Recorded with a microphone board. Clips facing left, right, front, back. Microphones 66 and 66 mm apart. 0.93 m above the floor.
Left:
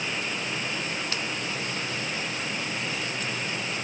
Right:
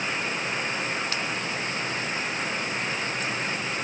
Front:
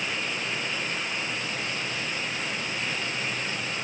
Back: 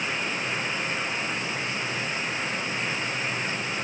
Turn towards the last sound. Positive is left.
No sound to turn to.